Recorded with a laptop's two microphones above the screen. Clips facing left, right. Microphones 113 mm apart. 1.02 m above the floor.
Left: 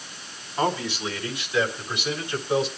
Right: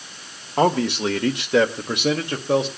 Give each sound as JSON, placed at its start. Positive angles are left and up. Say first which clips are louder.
{"t": 0.6, "sound": "a man speaking", "louder": "right 7 dB", "side_deg": -60, "distance_m": 1.5}